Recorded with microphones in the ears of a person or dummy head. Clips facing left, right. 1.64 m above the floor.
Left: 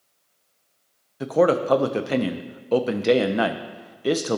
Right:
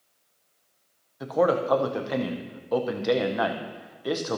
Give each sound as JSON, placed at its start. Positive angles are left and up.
{"t": 1.2, "sound": "a man speaking", "side_deg": 35, "distance_m": 0.6}